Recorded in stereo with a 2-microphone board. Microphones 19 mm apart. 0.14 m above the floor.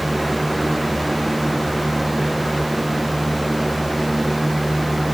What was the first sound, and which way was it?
Only background noise.